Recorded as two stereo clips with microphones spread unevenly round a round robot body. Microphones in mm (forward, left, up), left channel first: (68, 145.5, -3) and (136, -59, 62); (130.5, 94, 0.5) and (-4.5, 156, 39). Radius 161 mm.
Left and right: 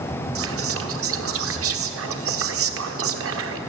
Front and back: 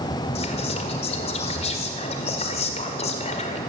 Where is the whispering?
55° right, 1.4 m.